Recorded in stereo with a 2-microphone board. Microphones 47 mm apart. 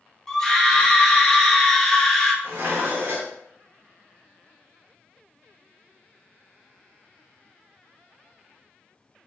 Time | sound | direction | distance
0.3 | a scream | 10° left (ahead or behind) | 0.5 m
2.4 | dishes clattering | 60° right (ahead or behind) | 0.7 m